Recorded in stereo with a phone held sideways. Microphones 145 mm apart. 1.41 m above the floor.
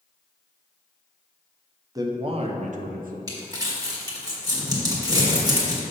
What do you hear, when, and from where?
1.9 s a man speaking: 25° right (ahead or behind), 0.8 m; by 3.2 s 75° right (ahead or behind), 0.8 m
3.3 s crumpling: 25° right (ahead or behind), 1.8 m